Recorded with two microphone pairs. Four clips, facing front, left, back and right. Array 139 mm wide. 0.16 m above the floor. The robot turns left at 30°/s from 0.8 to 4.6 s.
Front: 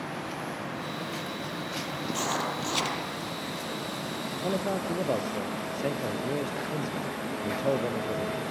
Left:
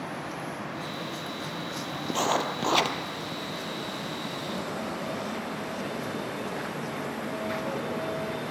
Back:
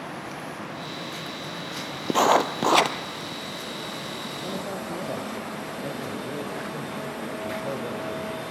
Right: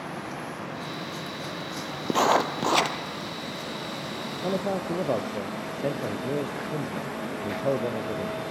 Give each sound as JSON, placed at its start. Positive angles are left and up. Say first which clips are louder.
{"t": 2.1, "sound": "writing", "louder": "right 5 dB, back 12 dB", "azimuth_deg": -160, "distance_m": 1.9}
{"t": 4.4, "sound": "a man speaking", "louder": "right 9 dB, front 4 dB", "azimuth_deg": -50, "distance_m": 3.5}